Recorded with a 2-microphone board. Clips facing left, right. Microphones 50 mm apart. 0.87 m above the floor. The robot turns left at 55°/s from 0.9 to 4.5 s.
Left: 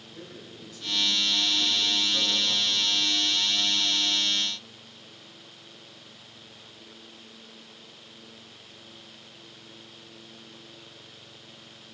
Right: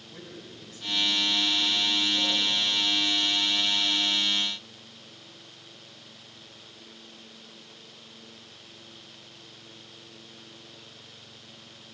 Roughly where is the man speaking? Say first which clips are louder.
Even; behind right.